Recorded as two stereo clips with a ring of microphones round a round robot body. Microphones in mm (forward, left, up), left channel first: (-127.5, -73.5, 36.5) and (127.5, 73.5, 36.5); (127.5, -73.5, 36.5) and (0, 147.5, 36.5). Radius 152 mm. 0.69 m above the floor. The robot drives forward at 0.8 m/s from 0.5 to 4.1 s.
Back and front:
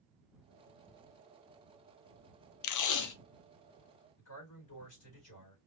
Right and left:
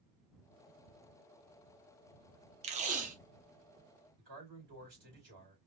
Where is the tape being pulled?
175° right, 0.6 m.